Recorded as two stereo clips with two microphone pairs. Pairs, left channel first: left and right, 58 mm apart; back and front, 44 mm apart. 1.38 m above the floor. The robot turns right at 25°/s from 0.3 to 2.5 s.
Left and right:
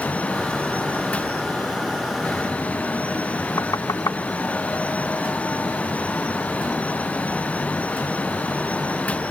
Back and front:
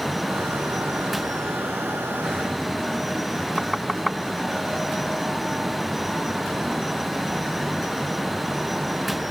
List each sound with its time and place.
3.6 s knocking: 90° left